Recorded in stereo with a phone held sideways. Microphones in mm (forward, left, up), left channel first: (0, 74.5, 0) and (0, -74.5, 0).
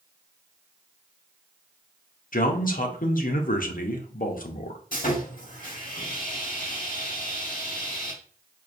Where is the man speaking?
70° left (ahead or behind), 0.7 m.